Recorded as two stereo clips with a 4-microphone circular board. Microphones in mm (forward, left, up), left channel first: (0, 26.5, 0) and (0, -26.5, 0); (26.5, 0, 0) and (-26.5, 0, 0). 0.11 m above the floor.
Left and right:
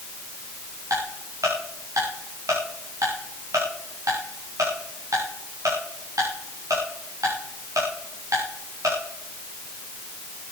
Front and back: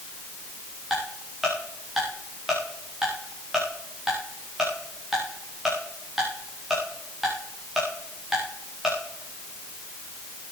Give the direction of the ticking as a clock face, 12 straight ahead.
3 o'clock.